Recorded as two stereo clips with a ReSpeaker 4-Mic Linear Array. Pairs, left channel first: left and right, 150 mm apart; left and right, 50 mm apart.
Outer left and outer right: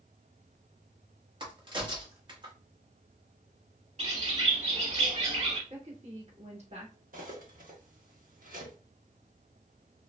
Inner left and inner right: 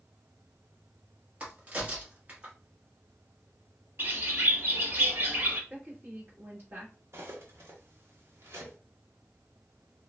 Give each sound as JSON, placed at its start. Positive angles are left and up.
{"t": 1.4, "sound": "a crack", "side_deg": -35, "distance_m": 1.1}
{"t": 4.0, "sound": "a bird", "side_deg": -45, "distance_m": 0.8}
{"t": 5.7, "sound": "a woman speaking", "side_deg": -50, "distance_m": 1.4}
{"t": 7.1, "sound": "cutlery clinking", "side_deg": -70, "distance_m": 0.9}